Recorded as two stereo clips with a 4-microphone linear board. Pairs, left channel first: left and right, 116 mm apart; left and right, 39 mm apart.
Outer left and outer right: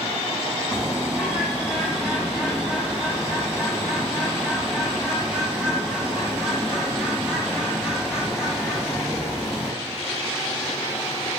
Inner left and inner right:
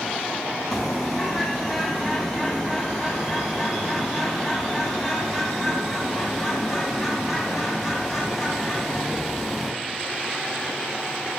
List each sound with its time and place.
0.7 s a bird: 5° right (ahead or behind), 3 m